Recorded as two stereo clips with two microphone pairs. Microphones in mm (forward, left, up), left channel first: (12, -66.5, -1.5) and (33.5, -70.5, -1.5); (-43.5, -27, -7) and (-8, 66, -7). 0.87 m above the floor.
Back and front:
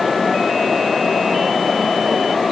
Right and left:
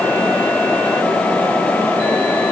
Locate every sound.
Only background noise.